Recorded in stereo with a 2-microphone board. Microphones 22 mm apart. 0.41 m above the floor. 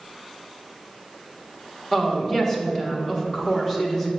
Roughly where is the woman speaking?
Centre.